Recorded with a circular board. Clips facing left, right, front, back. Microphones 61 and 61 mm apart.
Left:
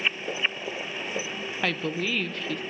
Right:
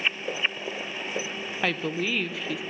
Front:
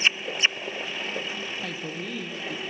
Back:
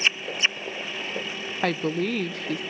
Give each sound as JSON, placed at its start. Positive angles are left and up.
{"t": 1.6, "sound": "a woman speaking", "azimuth_deg": -175, "distance_m": 0.5}